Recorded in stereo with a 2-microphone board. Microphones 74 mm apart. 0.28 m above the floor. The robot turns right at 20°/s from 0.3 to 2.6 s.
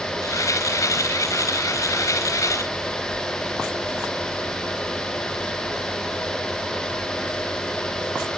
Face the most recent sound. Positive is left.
No sound to turn to.